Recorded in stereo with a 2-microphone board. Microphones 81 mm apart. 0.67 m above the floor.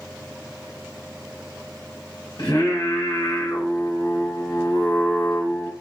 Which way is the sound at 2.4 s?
65° left (ahead or behind).